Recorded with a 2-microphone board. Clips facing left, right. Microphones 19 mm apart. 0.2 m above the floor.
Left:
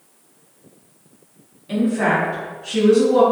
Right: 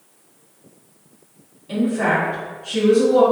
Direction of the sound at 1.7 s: 10° left (ahead or behind).